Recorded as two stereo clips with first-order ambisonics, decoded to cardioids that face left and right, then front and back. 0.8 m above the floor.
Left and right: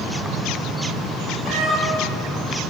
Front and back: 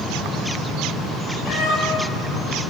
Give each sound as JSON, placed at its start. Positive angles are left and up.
{"t": 1.4, "sound": "a cat meowing", "azimuth_deg": -25, "distance_m": 6.5}